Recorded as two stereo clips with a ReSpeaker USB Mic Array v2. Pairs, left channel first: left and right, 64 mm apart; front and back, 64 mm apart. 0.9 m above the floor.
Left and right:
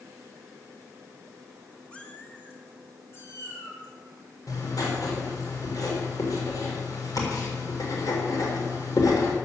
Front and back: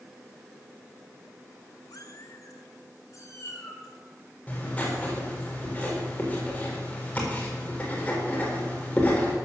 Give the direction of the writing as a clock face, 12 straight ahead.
10 o'clock.